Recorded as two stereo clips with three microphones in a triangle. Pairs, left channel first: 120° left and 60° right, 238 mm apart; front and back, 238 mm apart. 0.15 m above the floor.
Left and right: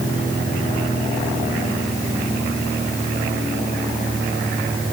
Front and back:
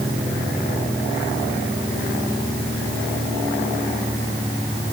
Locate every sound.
Only background noise.